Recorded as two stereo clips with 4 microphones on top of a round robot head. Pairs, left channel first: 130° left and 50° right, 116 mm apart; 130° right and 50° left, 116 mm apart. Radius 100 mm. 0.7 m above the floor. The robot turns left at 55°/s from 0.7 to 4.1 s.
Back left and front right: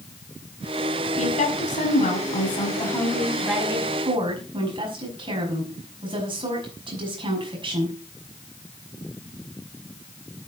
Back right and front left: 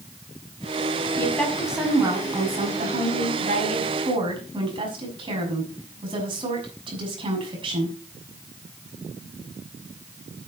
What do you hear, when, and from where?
1.2 s a woman speaking: 160° left, 6 m; by 8.0 s straight ahead, 6 m